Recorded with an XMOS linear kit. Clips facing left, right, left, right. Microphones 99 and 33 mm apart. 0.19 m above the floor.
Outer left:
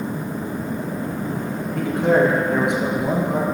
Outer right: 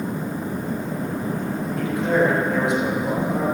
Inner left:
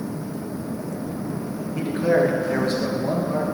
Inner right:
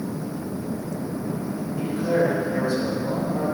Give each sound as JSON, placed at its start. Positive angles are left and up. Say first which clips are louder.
{"t": 1.8, "sound": "a man speaking", "louder": "outer left 3 dB, inner left 3 dB", "side_deg": 60, "distance_m": 2.5}